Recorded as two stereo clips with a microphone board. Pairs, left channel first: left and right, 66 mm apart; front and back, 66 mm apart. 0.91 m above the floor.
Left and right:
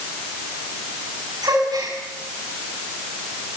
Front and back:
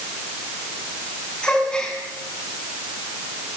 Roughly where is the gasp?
Right.